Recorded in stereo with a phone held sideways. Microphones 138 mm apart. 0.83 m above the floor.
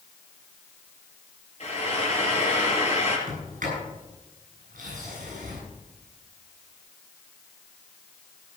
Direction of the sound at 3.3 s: 70° right (ahead or behind).